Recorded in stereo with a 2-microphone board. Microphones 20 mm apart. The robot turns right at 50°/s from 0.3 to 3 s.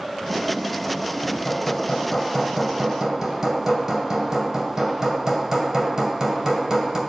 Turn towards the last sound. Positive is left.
turn(degrees=-130)